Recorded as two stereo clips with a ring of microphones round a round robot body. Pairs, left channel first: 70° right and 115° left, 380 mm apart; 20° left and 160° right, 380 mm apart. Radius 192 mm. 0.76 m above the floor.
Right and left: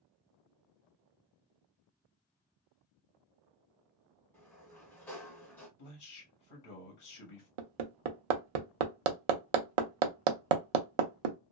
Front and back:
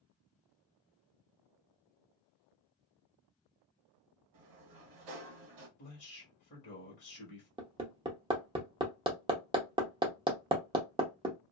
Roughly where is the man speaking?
Ahead right.